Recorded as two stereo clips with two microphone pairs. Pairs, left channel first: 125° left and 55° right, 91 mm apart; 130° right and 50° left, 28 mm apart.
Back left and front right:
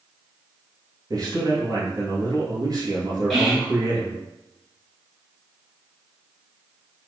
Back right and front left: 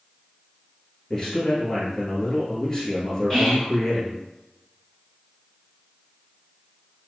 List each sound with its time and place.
1.1 s a man speaking: 70° right, 1.8 m
3.3 s whispering: 150° right, 1.3 m